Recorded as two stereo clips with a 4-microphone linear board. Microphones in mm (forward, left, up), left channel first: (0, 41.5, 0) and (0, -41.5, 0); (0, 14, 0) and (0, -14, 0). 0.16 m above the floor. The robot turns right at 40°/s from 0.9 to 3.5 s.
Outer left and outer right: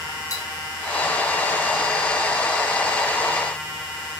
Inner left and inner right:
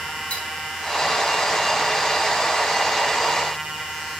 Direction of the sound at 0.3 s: 45° left (ahead or behind).